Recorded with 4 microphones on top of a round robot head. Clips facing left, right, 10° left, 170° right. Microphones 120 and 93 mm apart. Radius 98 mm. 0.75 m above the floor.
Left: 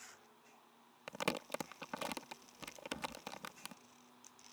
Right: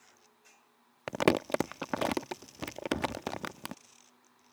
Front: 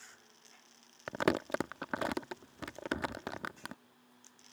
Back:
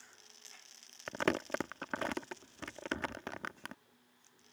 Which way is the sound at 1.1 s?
70° right.